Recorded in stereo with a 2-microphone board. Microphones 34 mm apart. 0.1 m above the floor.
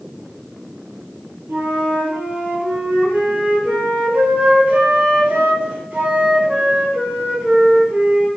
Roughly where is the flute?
Right.